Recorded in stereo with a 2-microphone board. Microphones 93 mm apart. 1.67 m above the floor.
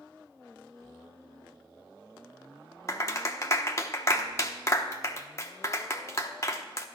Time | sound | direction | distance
2.9 | a clap | 30° left (ahead or behind) | 1.0 m